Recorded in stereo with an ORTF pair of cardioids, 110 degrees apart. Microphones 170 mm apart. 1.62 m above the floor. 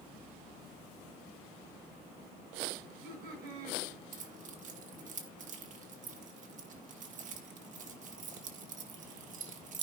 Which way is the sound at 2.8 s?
65° right.